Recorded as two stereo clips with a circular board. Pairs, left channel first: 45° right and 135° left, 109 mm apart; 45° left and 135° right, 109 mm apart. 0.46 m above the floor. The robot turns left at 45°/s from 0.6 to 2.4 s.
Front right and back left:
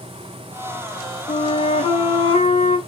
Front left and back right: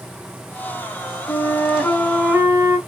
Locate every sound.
1.3 s a flute: 15° right, 0.6 m; by 2.8 s 65° right, 0.6 m